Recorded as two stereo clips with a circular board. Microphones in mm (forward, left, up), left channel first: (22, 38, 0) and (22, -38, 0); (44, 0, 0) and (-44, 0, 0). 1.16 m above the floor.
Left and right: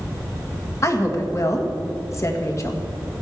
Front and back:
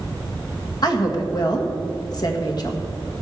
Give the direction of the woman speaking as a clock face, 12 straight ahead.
11 o'clock.